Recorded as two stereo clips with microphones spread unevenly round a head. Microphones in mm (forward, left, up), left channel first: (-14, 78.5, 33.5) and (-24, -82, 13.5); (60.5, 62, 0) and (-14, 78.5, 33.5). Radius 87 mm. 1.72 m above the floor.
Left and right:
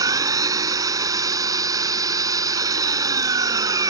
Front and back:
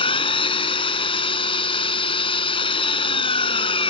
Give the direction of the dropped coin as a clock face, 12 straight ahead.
I don't hear a dropped coin.